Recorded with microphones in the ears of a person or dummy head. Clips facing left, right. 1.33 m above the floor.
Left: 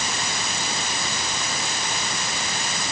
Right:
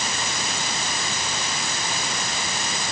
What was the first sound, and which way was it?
Only background noise.